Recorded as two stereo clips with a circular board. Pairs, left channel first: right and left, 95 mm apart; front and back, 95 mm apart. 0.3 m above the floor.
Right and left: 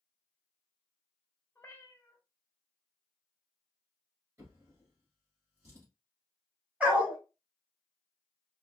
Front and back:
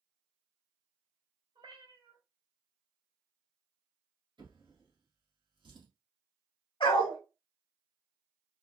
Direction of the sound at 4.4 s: 145° left.